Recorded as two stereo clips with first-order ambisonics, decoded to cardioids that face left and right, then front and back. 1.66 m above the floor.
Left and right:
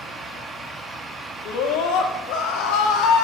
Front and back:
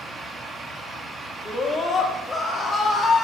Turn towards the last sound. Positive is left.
turn(degrees=70)